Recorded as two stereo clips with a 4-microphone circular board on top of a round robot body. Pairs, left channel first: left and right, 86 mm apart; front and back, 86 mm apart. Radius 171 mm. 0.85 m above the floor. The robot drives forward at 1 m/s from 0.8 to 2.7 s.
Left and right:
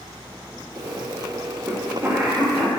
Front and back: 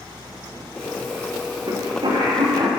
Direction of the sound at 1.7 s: 160° right.